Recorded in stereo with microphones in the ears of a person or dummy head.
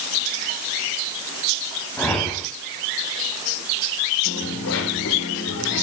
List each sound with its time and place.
2.0 s a whoosh: 5° left (ahead or behind), 3.5 m
4.2 s a dropped coin: 70° left (ahead or behind), 3.5 m